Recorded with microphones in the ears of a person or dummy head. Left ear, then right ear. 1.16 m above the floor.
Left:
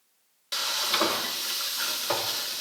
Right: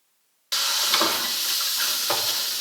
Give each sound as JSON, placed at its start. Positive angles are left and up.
{"t": 0.5, "sound": "frying", "side_deg": -15, "distance_m": 2.5}